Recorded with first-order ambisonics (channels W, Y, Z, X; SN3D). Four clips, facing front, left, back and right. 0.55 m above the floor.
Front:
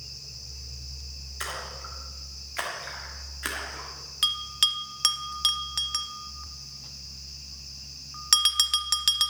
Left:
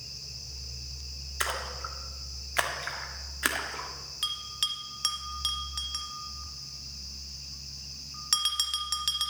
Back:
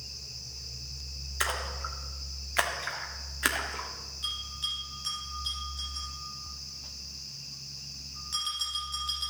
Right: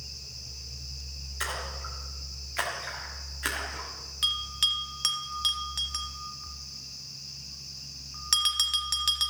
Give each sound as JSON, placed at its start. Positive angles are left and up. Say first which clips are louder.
{"t": 1.4, "sound": "a splash", "louder": "left 2 dB, back 4 dB", "azimuth_deg": 135, "distance_m": 1.3}
{"t": 4.2, "sound": "a bell", "louder": "right 5 dB, front 10 dB", "azimuth_deg": -5, "distance_m": 0.9}